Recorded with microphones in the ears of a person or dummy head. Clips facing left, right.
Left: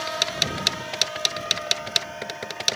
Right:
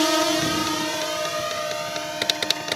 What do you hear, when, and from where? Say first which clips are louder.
0.0 s a drone: right 10 dB; 70° right (ahead or behind); by 2.8 s 55° right (ahead or behind)